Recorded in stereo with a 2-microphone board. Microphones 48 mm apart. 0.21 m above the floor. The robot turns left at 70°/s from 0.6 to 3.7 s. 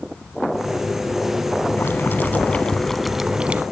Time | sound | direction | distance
1.8 | boiling | 95° left | 0.9 m